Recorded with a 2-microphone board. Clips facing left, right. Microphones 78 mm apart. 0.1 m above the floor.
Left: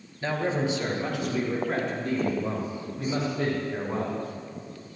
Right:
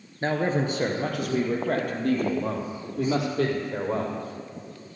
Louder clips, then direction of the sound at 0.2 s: Right 2 dB; 40° right (ahead or behind).